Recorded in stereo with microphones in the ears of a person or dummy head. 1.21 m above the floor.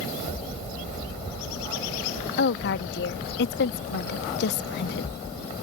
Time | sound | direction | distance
2.4 | a woman speaking | 70° left (ahead or behind) | ?